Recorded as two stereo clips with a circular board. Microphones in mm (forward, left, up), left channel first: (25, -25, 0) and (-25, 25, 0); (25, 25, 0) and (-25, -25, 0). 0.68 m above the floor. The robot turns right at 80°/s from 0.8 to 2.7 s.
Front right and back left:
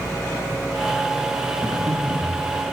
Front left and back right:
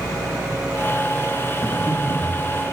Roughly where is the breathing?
Left.